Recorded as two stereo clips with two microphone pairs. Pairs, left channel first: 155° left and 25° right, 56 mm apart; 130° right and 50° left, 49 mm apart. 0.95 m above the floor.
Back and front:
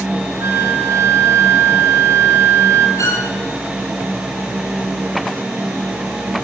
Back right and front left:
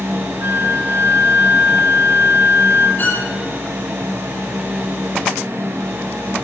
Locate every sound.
0.4 s a flute: 5° left, 4.5 m
3.0 s a violin: straight behind, 8.5 m